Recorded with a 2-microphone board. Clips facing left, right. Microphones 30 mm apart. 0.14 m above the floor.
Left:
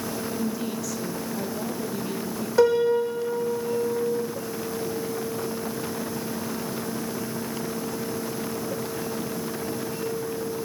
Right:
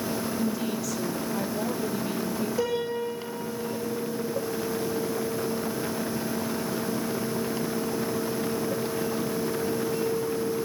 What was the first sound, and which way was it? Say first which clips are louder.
A woman speaking: even; 5° right (ahead or behind).